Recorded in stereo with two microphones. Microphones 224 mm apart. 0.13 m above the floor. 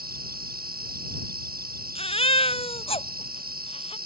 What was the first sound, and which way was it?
An insect, 40° right (ahead or behind).